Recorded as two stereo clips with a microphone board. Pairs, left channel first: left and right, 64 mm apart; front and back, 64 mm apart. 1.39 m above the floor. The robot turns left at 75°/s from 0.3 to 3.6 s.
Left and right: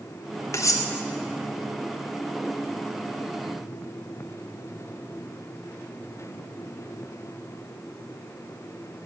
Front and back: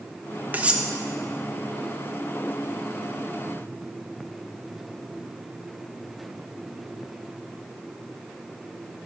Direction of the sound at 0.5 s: 120° left.